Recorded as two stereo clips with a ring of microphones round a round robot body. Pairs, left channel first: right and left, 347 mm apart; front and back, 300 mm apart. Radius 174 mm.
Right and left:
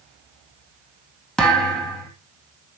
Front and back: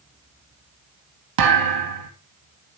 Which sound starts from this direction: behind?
A thud, at 1.4 s.